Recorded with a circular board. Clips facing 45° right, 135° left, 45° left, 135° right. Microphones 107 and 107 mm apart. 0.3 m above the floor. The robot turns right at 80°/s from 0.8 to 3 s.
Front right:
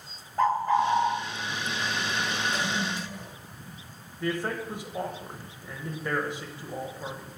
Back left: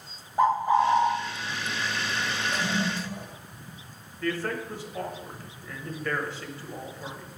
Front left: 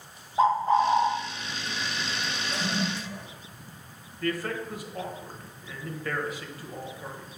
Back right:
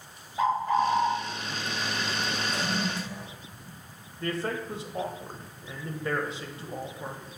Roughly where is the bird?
Left.